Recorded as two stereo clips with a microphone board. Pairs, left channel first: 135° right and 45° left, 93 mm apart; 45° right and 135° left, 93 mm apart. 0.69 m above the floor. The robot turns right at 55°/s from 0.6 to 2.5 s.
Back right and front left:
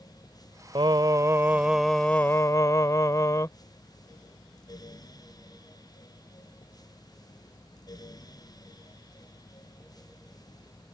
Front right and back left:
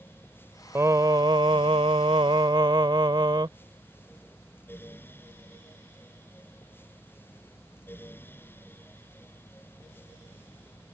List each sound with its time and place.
0.8 s singing: 75° left; by 3.5 s 170° left